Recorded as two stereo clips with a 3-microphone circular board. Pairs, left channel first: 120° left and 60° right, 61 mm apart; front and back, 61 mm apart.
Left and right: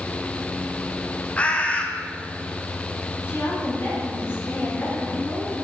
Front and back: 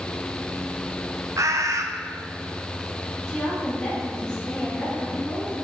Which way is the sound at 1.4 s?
175° right.